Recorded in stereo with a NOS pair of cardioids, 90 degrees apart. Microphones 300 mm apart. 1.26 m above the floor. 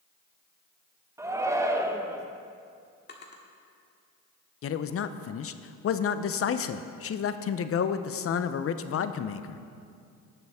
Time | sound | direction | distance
1.2 | a shout | 10° right | 1.3 m
3.1 | a drawer | 30° left | 1.7 m
4.6 | a man speaking | 45° left | 0.7 m